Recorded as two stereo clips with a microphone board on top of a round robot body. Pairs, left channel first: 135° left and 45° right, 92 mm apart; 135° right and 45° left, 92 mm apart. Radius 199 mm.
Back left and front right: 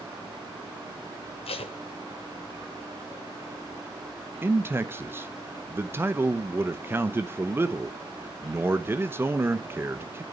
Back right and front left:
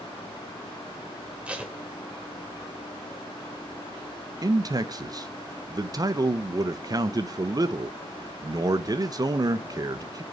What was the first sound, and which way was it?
Tape being pulled, 125° left.